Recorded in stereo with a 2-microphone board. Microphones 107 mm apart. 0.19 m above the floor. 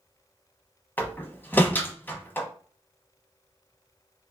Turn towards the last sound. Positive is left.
turn(degrees=20)  # may be behind; listen again after turning